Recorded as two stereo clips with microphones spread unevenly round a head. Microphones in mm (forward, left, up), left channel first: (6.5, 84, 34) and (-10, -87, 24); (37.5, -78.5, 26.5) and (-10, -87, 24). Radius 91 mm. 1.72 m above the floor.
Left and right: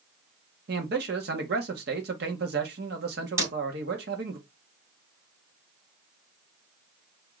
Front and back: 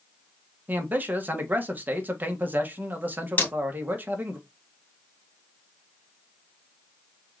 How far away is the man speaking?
About 1.3 m.